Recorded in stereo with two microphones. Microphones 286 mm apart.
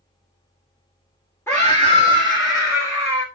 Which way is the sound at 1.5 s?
10° left (ahead or behind).